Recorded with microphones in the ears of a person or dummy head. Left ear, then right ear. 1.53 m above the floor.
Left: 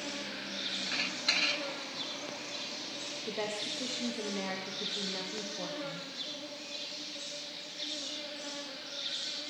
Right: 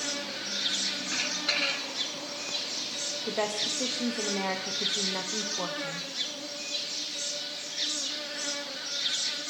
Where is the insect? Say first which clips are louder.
Right 6 dB; 65° right (ahead or behind), 1.7 m.